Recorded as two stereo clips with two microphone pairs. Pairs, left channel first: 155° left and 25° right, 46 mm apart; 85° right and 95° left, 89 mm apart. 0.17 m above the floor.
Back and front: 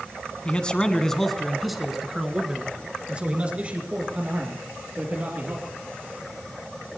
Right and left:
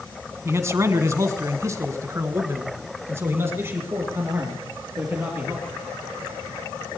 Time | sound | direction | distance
0.5 | a man speaking | 115° left | 1.6 m